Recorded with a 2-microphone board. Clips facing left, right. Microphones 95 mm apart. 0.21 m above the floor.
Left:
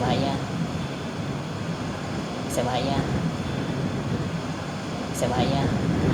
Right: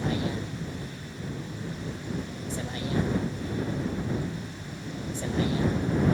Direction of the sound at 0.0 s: 70° left (ahead or behind).